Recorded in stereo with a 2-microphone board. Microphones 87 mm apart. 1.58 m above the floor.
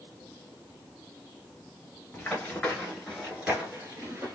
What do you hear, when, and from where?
2.1 s running footsteps: 20° left (ahead or behind), 1.6 m; by 4.3 s 30° right (ahead or behind), 1.7 m